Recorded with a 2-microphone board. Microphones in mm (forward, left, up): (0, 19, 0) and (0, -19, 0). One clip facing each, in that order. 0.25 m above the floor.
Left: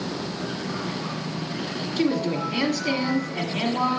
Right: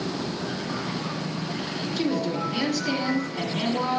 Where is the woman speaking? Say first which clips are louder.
Left 3 dB; 50° left (ahead or behind), 1.8 m.